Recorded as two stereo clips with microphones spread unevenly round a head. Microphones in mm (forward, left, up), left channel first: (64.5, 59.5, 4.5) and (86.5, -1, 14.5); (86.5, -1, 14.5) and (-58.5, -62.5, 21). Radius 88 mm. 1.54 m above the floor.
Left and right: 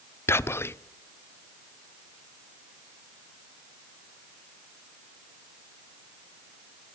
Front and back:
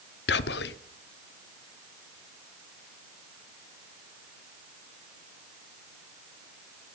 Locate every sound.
0.3 s whispering: 55° left, 0.6 m